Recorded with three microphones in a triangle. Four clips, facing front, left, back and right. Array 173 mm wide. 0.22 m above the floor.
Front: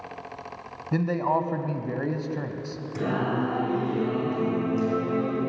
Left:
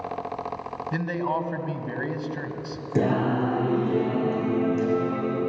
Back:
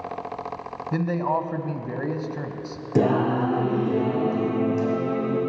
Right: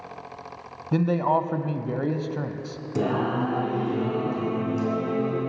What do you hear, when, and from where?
0.9 s a man speaking: 90° right, 1.2 m
3.0 s singing: 160° left, 5.5 m